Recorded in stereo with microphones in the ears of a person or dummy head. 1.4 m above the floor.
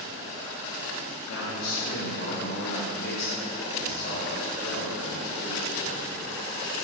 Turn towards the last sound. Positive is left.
turn(degrees=45)  # may be behind; listen again after turning